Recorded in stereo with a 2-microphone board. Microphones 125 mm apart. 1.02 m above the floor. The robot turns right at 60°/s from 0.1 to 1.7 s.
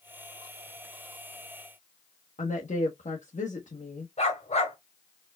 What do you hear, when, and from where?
2.4 s a woman speaking: 80° left, 1.3 m
4.2 s a dog barking: 65° left (ahead or behind), 2 m